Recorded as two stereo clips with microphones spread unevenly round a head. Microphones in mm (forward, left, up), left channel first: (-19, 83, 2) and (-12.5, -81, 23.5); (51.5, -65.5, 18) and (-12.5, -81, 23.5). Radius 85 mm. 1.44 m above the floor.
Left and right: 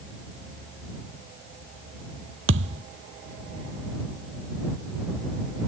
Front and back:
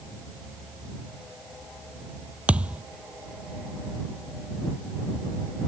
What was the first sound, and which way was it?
A thud, 95° right.